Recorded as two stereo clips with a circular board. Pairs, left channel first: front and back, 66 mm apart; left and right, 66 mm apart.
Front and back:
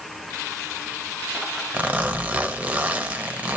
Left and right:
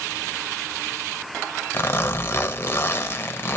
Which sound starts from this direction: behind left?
A zipper, at 1.7 s.